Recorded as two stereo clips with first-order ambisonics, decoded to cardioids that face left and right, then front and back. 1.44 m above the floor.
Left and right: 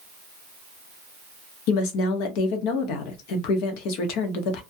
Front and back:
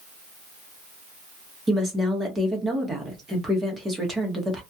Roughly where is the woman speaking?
Left.